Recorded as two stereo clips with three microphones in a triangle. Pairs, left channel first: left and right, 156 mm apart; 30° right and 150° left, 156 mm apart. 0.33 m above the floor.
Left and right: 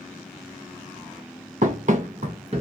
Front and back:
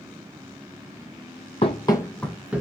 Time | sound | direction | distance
1.6 | running footsteps | 75° right | 0.6 m